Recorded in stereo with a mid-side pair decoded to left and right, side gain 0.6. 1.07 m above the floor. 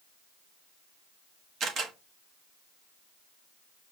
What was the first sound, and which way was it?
A camera shutter, 50° right.